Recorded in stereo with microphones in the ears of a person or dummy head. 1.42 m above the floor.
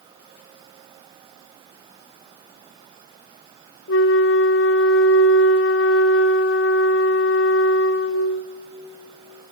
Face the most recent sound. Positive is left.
turn(degrees=70)  # may be behind; listen again after turning